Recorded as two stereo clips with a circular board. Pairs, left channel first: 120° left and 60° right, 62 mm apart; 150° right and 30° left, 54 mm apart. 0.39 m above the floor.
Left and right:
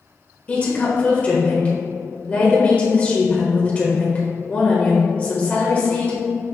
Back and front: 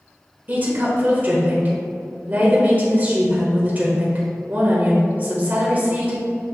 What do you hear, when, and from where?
0.5 s a woman speaking: 65° left, 1.3 m